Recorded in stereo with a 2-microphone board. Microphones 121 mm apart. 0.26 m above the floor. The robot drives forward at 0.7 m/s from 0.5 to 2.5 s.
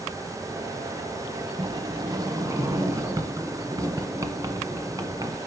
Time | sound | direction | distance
1.6 | a sliding door | 40° right (ahead or behind) | 0.9 m